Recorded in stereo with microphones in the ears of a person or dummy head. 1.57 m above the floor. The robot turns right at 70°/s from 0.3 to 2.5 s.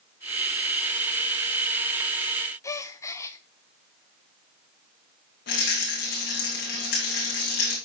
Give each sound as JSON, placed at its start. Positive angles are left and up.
{"t": 2.6, "sound": "a gasp", "side_deg": 15, "distance_m": 0.6}
{"t": 5.5, "sound": "a rattle", "side_deg": 55, "distance_m": 3.0}